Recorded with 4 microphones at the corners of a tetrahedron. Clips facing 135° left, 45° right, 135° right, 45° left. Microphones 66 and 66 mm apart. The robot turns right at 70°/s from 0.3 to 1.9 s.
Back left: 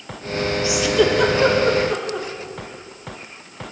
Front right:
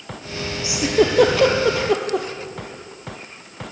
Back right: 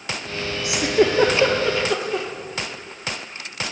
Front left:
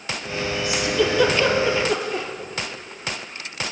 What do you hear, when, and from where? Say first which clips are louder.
0.6 s a giggle: front right 1 dB, back right 4 dB; 115° right, 1.8 m; by 2.3 s 30° right, 1.8 m